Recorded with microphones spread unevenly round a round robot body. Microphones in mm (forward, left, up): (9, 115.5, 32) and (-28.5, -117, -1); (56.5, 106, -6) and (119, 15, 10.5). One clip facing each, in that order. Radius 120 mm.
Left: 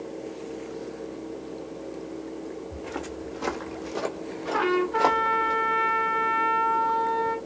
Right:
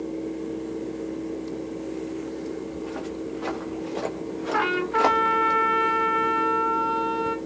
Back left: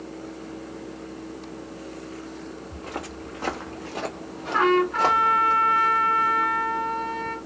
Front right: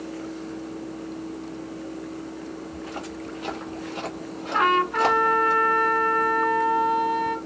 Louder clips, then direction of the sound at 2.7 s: Right 4 dB, front right 1 dB; 90° left.